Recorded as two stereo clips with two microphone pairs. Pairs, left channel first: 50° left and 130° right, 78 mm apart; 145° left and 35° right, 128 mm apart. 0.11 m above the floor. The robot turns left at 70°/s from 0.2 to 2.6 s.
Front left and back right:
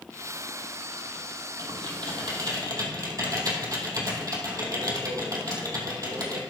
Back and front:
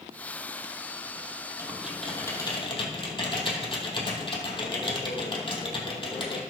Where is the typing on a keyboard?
95° right, 2.5 m; by 6.4 s 165° right, 2.5 m.